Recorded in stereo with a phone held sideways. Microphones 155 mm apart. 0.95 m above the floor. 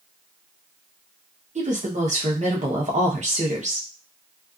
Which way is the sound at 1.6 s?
50° right (ahead or behind).